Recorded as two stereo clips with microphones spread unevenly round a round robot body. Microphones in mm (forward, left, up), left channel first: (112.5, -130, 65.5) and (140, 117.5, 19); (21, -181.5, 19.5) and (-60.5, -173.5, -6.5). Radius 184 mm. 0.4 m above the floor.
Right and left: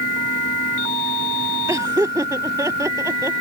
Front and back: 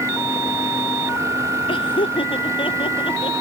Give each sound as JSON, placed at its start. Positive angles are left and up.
{"t": 1.7, "sound": "laughter", "azimuth_deg": 5}